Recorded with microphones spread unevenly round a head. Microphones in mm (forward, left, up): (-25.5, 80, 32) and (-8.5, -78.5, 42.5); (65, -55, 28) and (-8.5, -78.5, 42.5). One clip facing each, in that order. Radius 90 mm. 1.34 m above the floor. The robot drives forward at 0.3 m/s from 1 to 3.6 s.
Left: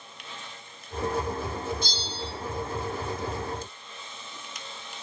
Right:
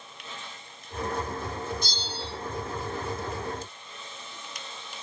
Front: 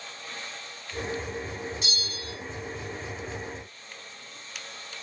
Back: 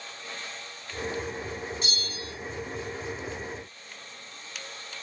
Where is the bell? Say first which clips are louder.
Left 1 dB, even; 130° right, 1.2 m; by 2.3 s 135° right, 1.3 m.